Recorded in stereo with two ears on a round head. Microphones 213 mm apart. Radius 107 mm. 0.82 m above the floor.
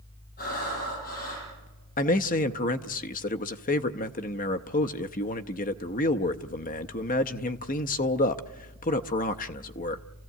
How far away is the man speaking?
About 0.6 m.